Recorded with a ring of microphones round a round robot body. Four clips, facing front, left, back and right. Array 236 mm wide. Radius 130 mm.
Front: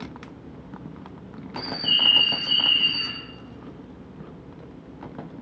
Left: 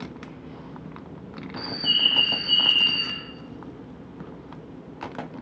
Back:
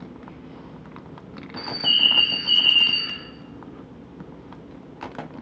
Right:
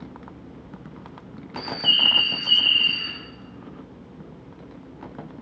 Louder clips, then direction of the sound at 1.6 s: Right 4 dB, back 1 dB; 135° right.